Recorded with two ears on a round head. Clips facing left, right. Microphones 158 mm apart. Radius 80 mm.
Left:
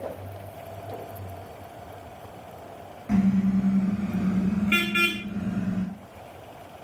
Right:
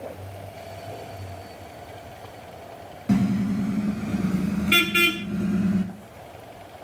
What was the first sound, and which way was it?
A car horn, 45° right (ahead or behind).